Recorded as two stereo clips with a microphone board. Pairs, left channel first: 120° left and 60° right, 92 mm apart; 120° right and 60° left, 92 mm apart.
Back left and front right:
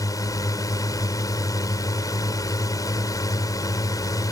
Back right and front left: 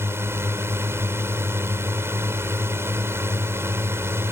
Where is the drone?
105° left.